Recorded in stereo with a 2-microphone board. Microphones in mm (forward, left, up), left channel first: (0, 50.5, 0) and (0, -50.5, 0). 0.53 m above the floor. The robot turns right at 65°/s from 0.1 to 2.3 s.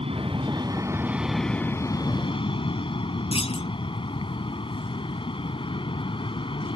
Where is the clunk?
80° left.